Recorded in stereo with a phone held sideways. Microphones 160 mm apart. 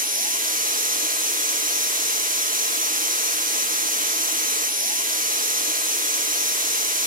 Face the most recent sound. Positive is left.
turn(degrees=-60)  # may be behind; listen again after turning